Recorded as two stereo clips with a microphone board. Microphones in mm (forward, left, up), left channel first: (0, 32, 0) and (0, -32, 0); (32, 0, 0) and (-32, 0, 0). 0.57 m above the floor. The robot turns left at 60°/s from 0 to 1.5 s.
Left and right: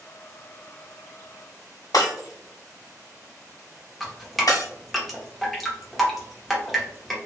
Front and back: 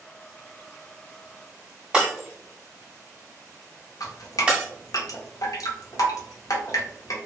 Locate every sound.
1.9 s breaking glass: 105° left, 1.0 m
4.0 s dripping: straight ahead, 0.7 m